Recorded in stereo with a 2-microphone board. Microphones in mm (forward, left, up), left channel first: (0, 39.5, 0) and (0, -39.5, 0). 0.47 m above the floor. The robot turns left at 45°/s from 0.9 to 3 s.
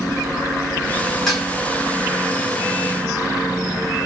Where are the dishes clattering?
Centre (ahead or behind), 1.9 m; by 1.5 s 10° right (ahead or behind), 1.9 m.